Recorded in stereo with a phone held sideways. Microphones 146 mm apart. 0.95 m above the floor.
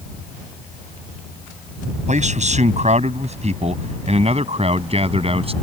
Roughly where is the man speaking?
Right.